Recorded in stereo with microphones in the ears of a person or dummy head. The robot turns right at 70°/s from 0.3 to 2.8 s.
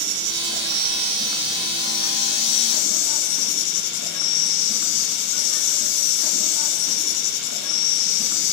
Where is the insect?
85° right, 3.5 m; by 8.5 s 90° left, 3.5 m.